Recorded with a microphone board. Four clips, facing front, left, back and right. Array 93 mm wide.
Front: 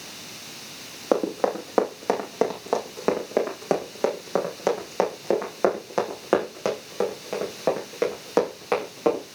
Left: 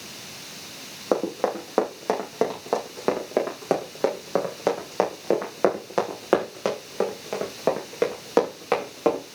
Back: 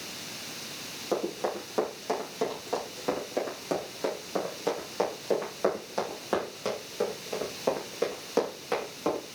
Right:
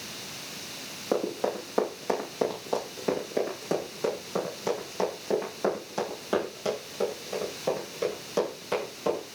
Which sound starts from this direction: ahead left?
Running footsteps, at 1.1 s.